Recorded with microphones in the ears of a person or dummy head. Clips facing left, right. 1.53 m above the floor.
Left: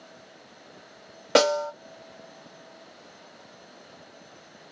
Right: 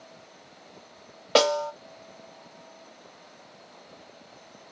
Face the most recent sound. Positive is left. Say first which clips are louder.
# left 1 dB
turn(degrees=25)  # may be behind; listen again after turning